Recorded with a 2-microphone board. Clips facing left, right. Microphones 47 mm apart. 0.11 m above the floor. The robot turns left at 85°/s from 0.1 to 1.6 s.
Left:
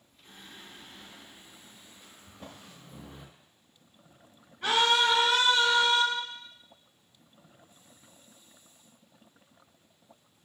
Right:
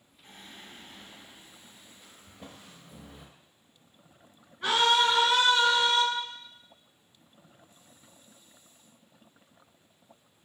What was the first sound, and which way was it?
Singing, 55° right.